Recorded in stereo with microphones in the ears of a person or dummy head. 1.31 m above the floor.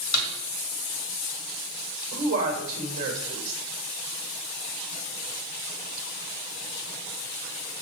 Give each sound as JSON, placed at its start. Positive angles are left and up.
{"t": 0.1, "sound": "a snare drum", "side_deg": 85, "distance_m": 1.6}
{"t": 2.1, "sound": "a woman speaking", "side_deg": -45, "distance_m": 2.5}